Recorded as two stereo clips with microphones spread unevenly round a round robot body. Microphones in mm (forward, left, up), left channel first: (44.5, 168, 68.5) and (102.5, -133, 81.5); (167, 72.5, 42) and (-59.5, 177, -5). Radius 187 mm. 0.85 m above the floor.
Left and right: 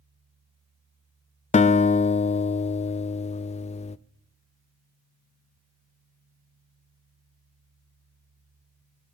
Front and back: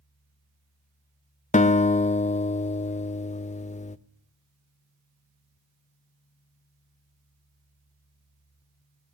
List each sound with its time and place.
1.5 s a guitar: 40° left, 0.5 m